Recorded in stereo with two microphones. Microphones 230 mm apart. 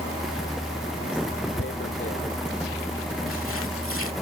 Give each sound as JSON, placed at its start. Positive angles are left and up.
{"t": 1.6, "sound": "tearing paper", "side_deg": 65}